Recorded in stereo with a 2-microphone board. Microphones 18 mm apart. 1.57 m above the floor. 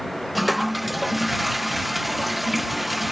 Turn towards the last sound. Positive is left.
turn(degrees=-10)  # may be behind; listen again after turning